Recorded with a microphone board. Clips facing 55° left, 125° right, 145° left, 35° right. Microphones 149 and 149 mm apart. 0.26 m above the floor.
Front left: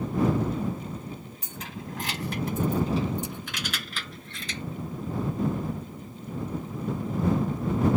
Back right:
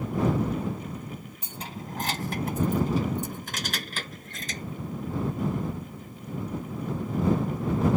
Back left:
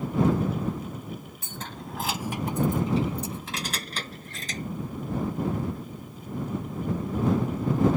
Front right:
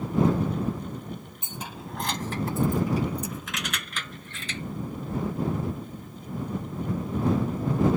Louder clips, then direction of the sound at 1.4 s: Even, even; 85° right.